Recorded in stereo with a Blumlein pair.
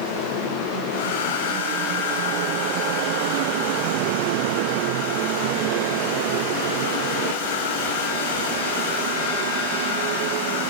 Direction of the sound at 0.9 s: 50° left.